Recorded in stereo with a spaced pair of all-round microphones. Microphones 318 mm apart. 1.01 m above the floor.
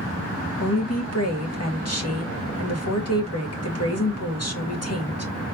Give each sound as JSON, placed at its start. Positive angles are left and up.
{"t": 0.6, "sound": "a woman speaking", "side_deg": 50, "distance_m": 2.0}